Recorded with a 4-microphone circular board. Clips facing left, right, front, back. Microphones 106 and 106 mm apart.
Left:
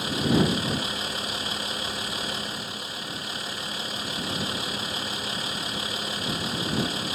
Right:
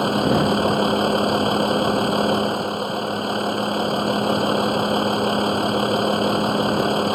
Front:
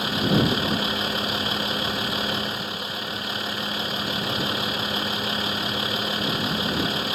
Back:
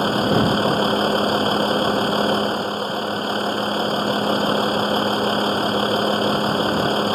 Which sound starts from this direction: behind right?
A vehicle, at 0.0 s.